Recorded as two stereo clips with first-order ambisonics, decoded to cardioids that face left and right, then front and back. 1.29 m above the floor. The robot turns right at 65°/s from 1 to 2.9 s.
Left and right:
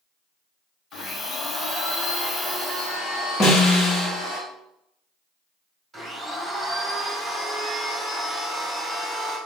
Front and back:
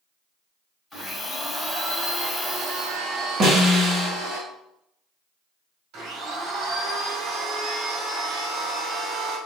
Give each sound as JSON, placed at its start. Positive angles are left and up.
{"t": 0.9, "sound": "a blender", "azimuth_deg": 65, "distance_m": 1.6}
{"t": 3.4, "sound": "a snare drum", "azimuth_deg": 145, "distance_m": 1.0}
{"t": 5.9, "sound": "a blender", "azimuth_deg": -170, "distance_m": 1.7}